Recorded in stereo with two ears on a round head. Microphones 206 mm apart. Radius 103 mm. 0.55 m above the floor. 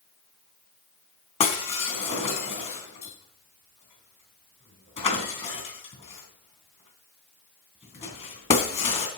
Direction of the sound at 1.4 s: 30° left (ahead or behind).